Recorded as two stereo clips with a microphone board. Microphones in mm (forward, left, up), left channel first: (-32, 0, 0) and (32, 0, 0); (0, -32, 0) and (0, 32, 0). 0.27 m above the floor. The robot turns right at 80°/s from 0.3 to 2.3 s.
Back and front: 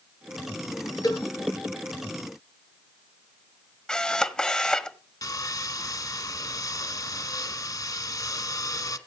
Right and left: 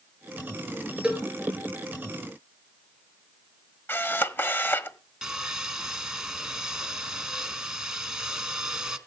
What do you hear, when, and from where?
1.0 s a cowbell: 165° left, 4.5 m; by 1.2 s straight behind, 4.5 m
3.9 s a camera shutter: 110° right, 1.1 m
5.2 s sawing: 170° left, 1.7 m